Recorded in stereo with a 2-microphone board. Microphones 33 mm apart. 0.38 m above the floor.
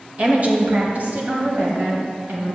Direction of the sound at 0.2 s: 40° right (ahead or behind).